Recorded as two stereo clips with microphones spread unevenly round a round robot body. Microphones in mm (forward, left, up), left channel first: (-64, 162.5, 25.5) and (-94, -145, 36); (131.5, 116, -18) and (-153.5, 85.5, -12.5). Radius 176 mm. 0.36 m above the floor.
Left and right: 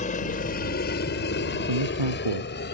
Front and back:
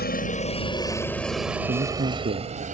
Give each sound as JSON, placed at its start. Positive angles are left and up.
{"t": 0.0, "sound": "a helicopter", "azimuth_deg": 35}
{"t": 1.7, "sound": "a man speaking", "azimuth_deg": -100}